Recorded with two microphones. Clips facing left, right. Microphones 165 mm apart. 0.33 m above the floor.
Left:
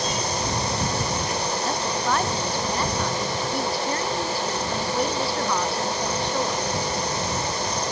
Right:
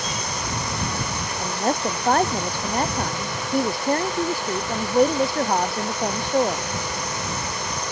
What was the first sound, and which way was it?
A woman speaking, 50° right (ahead or behind).